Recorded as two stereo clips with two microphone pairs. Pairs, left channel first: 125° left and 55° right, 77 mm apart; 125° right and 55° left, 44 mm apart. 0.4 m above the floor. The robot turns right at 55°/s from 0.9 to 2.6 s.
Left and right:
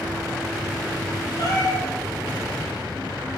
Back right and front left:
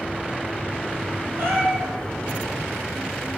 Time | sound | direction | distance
1.4 | a cat meowing | 80° left | 3.5 m